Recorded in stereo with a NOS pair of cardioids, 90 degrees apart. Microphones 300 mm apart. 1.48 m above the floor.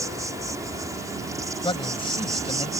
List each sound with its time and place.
0.0 s an insect: 10° right
1.6 s a man speaking: 15° left